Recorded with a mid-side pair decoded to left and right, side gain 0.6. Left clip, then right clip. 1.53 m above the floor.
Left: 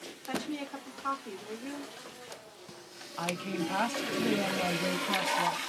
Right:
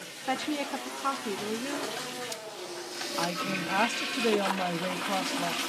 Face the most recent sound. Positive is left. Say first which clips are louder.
# right 2 dB
turn(degrees=-30)